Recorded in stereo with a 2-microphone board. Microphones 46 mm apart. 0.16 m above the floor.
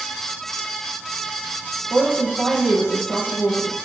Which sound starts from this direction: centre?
A woman speaking, at 1.9 s.